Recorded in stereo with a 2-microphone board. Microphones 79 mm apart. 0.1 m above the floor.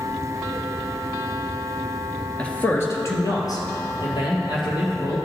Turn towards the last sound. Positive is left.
turn(degrees=70)  # may be behind; listen again after turning